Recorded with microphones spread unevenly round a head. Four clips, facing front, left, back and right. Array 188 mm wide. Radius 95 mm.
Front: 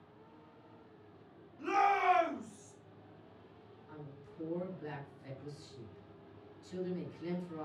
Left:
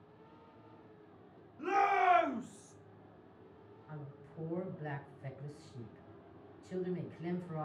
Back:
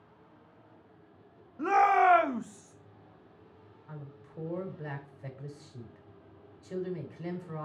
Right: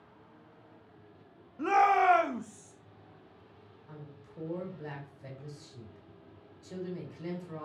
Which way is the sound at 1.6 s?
140° right.